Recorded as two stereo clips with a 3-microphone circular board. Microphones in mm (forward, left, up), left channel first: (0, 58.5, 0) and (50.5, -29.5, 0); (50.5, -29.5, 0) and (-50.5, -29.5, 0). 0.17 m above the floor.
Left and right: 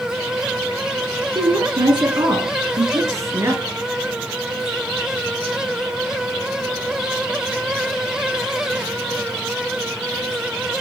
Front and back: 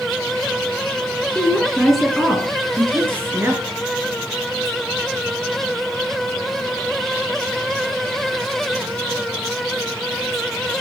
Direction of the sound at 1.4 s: 75° right.